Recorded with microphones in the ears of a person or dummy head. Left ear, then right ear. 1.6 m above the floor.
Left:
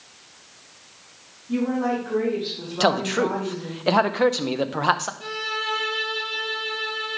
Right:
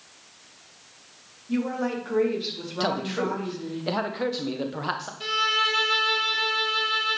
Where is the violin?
85° right, 1.2 m.